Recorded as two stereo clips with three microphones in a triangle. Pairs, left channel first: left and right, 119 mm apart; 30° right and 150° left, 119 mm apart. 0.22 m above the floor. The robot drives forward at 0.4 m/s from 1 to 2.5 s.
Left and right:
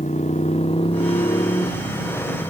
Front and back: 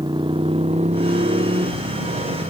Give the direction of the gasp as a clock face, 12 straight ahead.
No gasp in this recording.